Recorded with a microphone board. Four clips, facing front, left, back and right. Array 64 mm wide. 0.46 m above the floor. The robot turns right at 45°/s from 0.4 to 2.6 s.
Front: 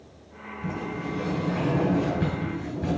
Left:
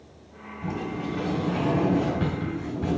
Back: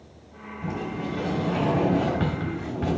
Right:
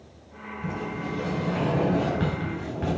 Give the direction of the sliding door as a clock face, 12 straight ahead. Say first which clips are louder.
Left 1 dB, back 1 dB; 7 o'clock.